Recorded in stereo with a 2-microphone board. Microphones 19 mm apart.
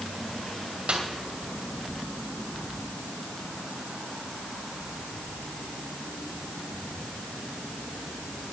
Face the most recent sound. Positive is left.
turn(degrees=-90)